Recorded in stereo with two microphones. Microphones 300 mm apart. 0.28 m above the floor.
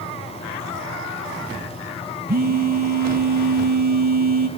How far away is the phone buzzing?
About 1.4 m.